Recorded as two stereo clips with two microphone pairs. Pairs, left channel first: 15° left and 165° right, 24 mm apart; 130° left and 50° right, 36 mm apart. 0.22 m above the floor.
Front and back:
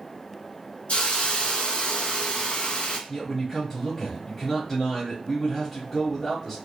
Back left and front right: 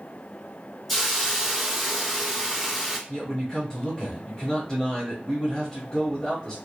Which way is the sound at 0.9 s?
50° left.